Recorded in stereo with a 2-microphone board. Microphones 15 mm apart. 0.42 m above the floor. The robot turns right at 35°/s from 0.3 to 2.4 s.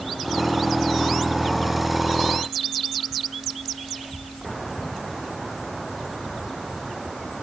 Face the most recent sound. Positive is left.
No sound to turn to.